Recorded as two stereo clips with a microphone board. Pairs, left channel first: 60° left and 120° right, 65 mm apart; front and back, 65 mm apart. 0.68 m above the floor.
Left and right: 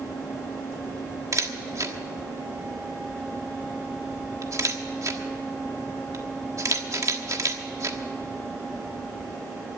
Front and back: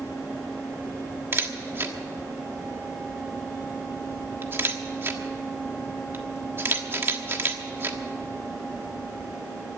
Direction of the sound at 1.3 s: 135° right.